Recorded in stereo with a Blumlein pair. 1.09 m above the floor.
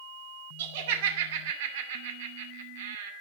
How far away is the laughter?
About 2.5 m.